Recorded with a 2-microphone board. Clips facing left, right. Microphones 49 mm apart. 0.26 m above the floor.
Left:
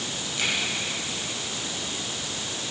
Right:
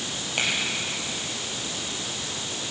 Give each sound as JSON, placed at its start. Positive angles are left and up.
{"t": 0.4, "sound": "a finger snap", "side_deg": -75, "distance_m": 7.0}